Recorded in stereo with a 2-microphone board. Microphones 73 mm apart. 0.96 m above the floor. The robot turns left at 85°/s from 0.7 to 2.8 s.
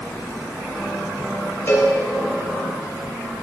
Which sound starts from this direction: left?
A cowbell, at 1.7 s.